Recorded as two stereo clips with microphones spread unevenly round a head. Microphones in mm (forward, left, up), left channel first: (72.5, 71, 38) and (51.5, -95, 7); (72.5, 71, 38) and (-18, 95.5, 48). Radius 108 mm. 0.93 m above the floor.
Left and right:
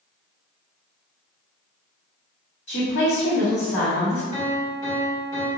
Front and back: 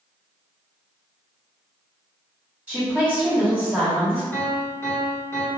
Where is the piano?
35° left, 1.2 m.